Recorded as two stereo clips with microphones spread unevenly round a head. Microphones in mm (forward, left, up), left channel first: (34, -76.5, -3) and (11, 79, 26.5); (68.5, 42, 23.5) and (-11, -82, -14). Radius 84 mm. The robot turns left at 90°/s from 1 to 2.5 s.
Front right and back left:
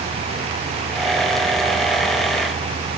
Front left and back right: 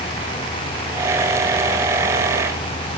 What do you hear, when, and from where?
Only background noise.